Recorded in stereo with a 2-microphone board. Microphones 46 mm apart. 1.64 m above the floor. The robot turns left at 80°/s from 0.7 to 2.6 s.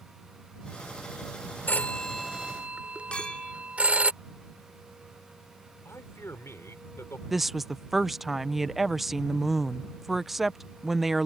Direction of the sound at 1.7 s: 45° left (ahead or behind).